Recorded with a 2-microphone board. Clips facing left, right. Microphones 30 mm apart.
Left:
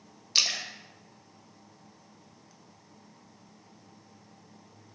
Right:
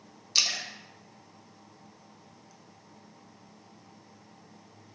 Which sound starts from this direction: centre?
A splash, at 0.3 s.